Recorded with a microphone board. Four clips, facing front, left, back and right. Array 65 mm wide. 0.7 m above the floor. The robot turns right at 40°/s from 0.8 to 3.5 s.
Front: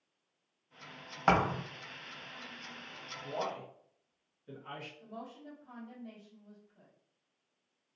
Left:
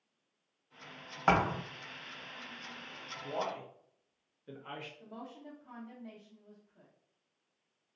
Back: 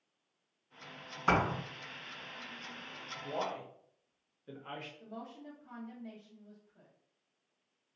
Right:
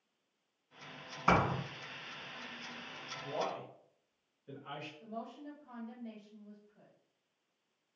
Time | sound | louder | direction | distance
1.3 | a thud | left 1 dB, front 2 dB | 40° left | 2.0 m
3.2 | a man speaking | left 1 dB, even | 120° left | 1.0 m
5.0 | a woman speaking | right 3 dB, even | 130° left | 1.5 m